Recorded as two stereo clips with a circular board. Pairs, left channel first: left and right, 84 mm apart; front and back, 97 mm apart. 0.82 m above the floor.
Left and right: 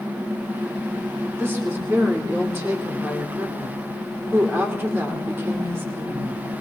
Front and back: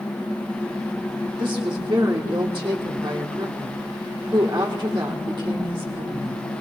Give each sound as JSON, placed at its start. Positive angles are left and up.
{"t": 1.4, "sound": "a woman speaking", "azimuth_deg": -150, "distance_m": 2.5}